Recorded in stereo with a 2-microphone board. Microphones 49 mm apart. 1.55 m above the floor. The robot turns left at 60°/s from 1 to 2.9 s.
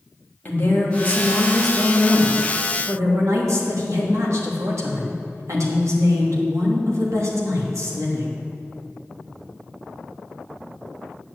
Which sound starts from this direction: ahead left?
A woman speaking, at 0.5 s.